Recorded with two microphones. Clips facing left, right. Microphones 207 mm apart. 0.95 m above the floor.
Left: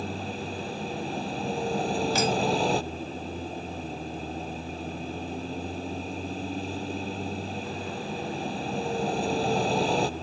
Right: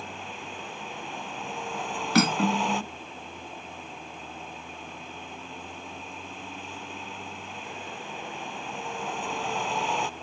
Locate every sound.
0.0 s a vehicle: 35° left (ahead or behind)
2.1 s cutlery clinking: 70° right (ahead or behind)